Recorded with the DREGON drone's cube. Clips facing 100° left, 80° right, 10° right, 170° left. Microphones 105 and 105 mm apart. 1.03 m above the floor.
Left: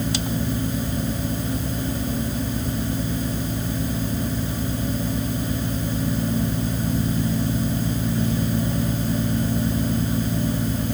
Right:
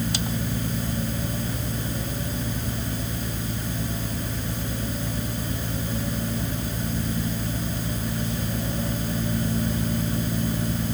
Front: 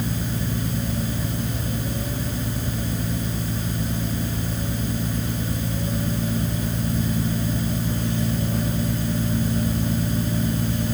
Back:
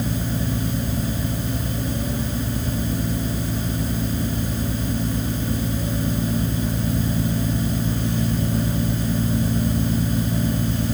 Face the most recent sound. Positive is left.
No sound to turn to.